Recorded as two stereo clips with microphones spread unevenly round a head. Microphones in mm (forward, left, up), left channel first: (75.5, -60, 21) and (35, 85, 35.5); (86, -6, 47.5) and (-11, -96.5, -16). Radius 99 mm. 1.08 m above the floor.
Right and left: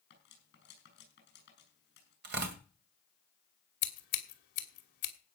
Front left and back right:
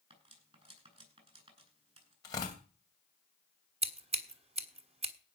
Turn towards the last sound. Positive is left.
turn(degrees=-90)